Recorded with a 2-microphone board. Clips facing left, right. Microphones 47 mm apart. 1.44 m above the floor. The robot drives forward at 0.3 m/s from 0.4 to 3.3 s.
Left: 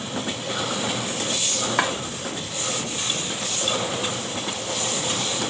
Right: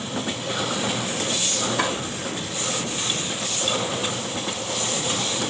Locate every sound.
1.8 s chopping: 65° left (ahead or behind), 2.0 m